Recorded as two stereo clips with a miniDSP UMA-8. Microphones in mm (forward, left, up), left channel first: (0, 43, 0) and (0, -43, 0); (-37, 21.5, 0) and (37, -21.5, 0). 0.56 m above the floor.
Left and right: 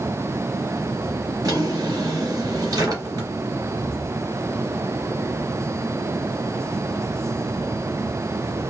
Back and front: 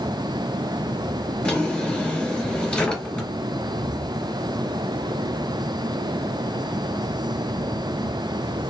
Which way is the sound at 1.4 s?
135° right.